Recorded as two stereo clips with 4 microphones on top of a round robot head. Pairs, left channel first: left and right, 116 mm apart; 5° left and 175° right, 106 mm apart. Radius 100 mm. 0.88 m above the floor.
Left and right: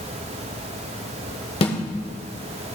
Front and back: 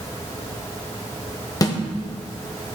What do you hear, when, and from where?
1.6 s a snare drum: 55° left, 1.2 m